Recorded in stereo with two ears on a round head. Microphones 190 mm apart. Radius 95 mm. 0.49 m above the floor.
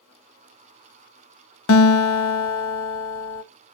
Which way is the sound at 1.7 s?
70° left (ahead or behind).